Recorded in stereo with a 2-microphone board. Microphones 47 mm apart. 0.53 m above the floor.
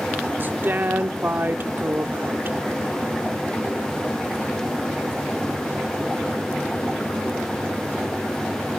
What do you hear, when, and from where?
0.4 s a woman speaking: 45° right (ahead or behind), 0.9 m